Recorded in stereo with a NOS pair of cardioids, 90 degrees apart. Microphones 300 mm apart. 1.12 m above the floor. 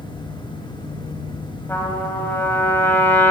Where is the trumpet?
10° left, 3 m.